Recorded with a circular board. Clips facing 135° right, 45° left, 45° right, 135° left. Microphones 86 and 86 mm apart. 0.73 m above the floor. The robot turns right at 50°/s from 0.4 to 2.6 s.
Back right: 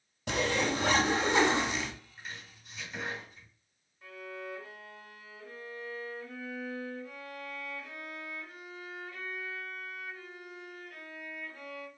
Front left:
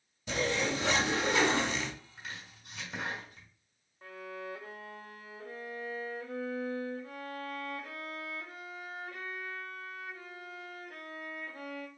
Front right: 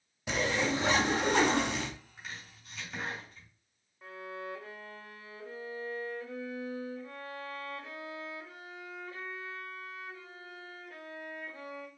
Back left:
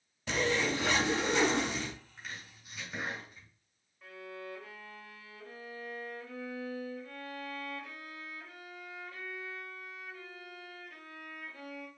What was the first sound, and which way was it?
A zipper, 120° right.